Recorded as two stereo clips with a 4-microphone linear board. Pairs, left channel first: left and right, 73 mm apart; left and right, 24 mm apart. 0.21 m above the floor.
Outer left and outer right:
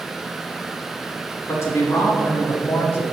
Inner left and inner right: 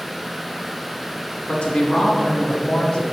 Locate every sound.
1.5 s a man speaking: 40° left (ahead or behind), 1.7 m; by 3.0 s 35° left (ahead or behind), 1.4 m